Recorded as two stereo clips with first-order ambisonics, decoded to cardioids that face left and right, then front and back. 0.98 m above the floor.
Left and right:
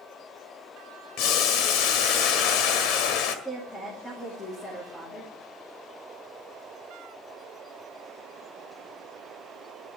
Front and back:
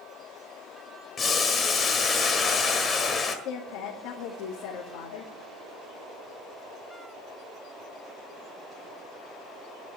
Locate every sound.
1.2 s boiling: 70° left, 1.5 m
3.5 s a woman speaking: 10° left, 2 m